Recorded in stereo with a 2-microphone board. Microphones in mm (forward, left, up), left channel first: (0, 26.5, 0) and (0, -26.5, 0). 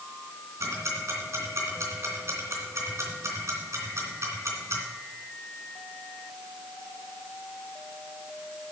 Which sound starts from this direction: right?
Ticking, at 0.6 s.